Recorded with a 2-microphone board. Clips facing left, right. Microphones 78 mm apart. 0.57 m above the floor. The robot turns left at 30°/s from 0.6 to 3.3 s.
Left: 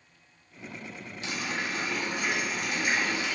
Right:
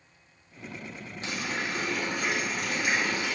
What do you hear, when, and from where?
1.2 s a running tap: 50° right, 1.1 m; by 3.4 s 110° right, 1.1 m